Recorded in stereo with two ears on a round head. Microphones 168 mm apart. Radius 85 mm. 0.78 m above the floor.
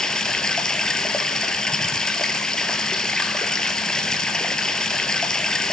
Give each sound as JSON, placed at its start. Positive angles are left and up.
{"t": 0.0, "sound": "running water", "side_deg": 5, "distance_m": 1.4}